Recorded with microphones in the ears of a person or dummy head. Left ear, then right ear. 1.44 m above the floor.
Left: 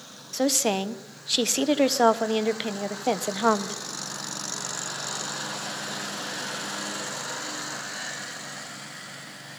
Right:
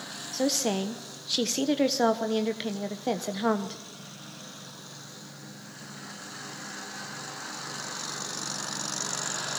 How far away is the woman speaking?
About 1.2 m.